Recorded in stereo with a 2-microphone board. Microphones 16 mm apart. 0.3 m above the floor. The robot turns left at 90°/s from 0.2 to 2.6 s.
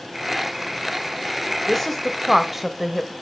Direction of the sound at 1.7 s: 25° left (ahead or behind).